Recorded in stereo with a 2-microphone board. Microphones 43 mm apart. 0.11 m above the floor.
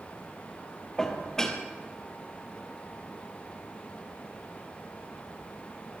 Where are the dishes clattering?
15° left (ahead or behind), 2 m.